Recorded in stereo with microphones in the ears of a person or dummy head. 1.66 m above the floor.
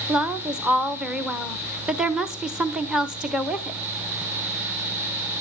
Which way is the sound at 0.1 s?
5° right (ahead or behind).